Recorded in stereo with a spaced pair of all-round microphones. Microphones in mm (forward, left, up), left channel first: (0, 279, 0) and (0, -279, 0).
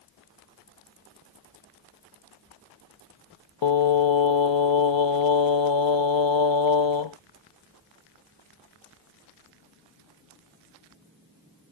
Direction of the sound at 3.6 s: 55° left (ahead or behind).